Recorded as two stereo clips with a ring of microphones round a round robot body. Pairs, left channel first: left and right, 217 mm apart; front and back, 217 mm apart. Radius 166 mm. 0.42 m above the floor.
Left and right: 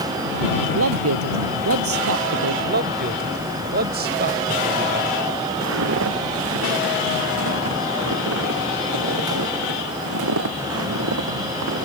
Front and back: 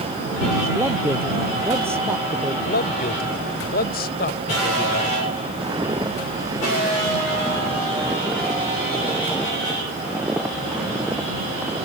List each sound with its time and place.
0.8 s a man speaking: 100° right
2.7 s a man speaking: 45° right
5.6 s footsteps: 100° right; by 11.8 s 90° right